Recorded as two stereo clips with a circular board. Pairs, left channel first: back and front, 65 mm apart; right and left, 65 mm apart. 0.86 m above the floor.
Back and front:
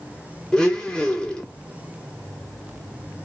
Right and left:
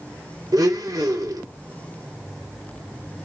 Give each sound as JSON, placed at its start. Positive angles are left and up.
{"t": 0.5, "sound": "a blender", "azimuth_deg": 105, "distance_m": 2.5}